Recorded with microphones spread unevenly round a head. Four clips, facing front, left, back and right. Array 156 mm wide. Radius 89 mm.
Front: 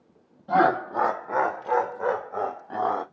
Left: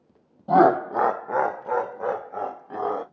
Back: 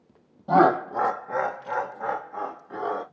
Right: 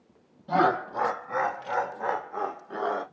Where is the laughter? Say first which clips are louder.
Left 7 dB, back 2 dB; 115° left, 0.5 m; by 3.0 s 45° left, 1.6 m.